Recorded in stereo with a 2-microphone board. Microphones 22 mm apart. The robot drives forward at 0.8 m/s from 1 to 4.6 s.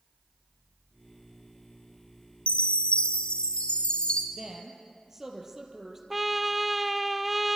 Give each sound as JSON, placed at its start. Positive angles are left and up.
{"t": 2.5, "sound": "a chime", "side_deg": 70, "distance_m": 1.9}
{"t": 4.3, "sound": "a woman speaking", "side_deg": -25, "distance_m": 4.5}
{"t": 6.1, "sound": "a trumpet", "side_deg": 0, "distance_m": 0.8}